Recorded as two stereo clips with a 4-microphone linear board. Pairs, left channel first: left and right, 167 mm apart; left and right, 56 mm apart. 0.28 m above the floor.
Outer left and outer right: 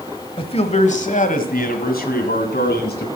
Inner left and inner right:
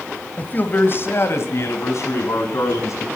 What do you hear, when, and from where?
0.4 s a man speaking: 30° left (ahead or behind), 1.1 m; by 3.0 s 60° left (ahead or behind), 2.5 m